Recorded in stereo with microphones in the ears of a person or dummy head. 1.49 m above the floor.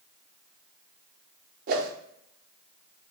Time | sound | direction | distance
1.7 | a whoosh | 55° right (ahead or behind) | 0.6 m